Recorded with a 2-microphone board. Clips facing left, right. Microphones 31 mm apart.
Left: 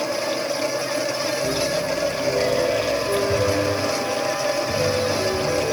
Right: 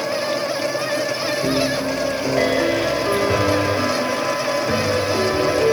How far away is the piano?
About 1.3 m.